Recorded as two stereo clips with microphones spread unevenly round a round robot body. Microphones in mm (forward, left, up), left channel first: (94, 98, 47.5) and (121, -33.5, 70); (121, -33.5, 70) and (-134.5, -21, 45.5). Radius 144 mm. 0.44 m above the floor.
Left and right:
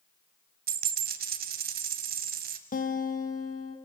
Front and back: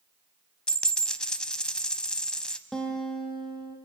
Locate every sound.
0.7 s a dropped coin: 90° right, 1.3 m
2.7 s a guitar: 85° left, 3 m